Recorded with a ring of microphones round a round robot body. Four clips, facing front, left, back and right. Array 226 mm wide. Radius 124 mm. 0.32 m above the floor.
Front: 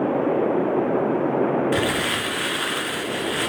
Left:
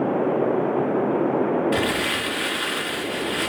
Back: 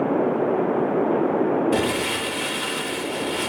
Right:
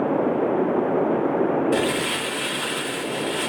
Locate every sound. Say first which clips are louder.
1.7 s crumpling: right 1 dB, even; 30° left, 2.5 m